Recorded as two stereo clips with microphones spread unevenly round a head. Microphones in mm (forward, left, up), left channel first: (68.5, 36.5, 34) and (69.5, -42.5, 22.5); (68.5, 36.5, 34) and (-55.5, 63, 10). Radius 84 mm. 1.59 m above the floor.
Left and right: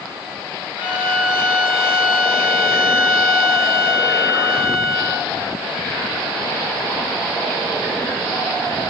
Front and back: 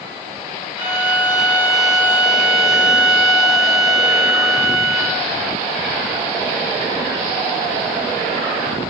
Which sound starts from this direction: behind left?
A violin, at 0.8 s.